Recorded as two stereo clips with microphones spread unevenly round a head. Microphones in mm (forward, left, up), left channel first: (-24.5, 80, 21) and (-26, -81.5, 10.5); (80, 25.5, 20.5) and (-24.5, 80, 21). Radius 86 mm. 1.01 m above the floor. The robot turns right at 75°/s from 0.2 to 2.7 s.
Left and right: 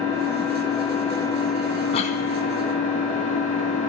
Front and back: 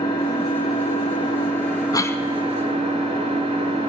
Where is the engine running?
60° right, 9.5 m; by 3.9 s 130° left, 9.5 m.